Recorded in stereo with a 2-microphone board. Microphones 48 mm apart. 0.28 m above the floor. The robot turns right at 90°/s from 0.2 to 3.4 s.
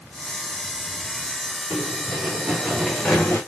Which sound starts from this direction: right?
Running footsteps, at 1.7 s.